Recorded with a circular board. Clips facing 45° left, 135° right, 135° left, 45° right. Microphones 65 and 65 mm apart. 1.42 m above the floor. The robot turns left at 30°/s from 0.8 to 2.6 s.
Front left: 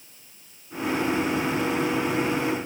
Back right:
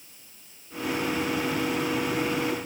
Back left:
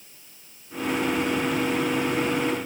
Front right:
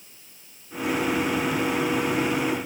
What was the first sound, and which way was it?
Only background noise.